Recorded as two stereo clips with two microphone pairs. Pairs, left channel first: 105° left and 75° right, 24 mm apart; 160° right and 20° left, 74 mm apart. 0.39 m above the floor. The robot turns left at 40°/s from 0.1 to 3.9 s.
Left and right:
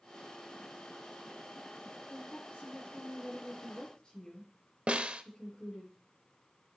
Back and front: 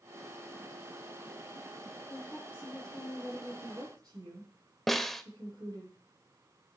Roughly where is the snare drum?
Right.